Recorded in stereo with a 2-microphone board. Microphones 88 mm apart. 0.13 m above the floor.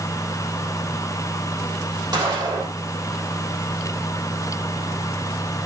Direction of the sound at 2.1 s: 45° right (ahead or behind).